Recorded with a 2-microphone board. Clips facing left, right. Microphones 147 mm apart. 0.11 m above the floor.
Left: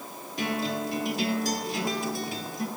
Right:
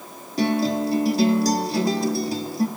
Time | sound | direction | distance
0.4 | a guitar | 35° right (ahead or behind) | 1.4 m